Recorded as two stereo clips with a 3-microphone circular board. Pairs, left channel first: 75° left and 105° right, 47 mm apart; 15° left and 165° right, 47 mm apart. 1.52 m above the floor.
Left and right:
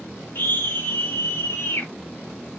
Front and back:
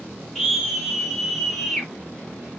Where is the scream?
105° left, 3 m; by 1.9 s 95° left, 5 m.